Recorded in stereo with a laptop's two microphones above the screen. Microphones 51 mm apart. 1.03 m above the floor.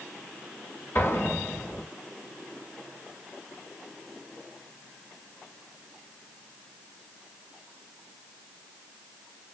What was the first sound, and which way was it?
An explosion, 55° left (ahead or behind).